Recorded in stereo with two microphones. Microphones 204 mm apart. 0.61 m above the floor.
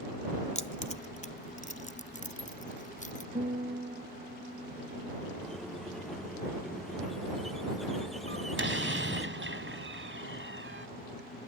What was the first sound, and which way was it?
Keys jangling, 35° left (ahead or behind).